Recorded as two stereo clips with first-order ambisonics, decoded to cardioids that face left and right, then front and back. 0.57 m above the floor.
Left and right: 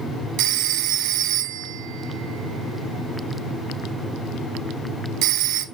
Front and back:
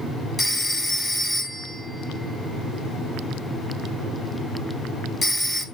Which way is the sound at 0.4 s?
75° right.